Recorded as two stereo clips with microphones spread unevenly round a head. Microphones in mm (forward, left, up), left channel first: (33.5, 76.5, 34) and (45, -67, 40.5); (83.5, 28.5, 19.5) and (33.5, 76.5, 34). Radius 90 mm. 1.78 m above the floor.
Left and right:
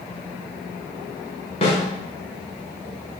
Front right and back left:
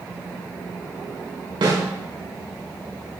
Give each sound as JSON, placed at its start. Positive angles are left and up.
{"t": 1.6, "sound": "a snare drum", "azimuth_deg": 145, "distance_m": 5.5}